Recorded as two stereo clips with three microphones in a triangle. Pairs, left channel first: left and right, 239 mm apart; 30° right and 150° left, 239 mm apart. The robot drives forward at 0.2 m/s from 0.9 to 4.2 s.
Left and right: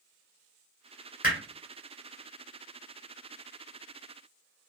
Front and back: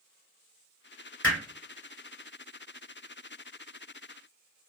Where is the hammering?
5° right, 1.6 m.